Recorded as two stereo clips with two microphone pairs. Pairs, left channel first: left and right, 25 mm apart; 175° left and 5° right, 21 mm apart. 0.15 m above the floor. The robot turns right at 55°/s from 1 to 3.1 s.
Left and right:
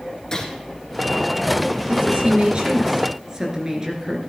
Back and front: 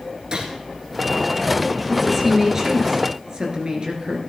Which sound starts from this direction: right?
A woman speaking, at 1.9 s.